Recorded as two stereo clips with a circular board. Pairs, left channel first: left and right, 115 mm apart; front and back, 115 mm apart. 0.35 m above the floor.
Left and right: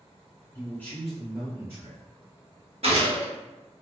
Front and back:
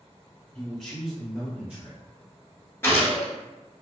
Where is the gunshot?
70° right, 0.8 m.